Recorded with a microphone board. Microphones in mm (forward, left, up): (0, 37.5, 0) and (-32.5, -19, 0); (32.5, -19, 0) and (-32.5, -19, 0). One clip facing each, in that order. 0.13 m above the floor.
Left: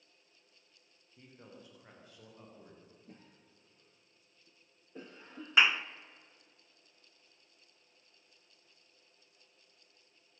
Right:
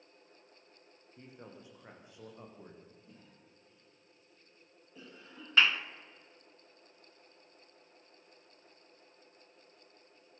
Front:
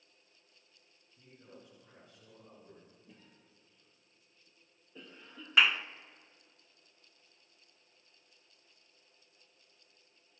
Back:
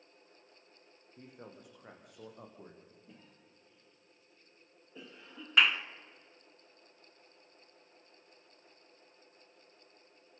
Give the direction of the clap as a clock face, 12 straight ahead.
9 o'clock.